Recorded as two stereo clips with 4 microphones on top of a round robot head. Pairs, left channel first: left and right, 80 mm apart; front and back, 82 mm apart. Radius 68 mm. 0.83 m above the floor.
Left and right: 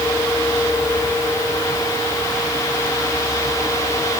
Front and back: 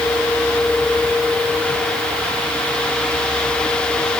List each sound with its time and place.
Only background noise.